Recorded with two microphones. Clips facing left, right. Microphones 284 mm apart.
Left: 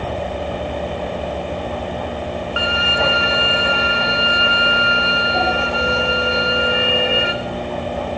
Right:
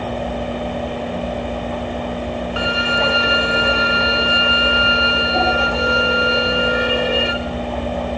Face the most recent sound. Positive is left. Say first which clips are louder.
# right 1 dB
turn(degrees=-40)  # may be behind; listen again after turning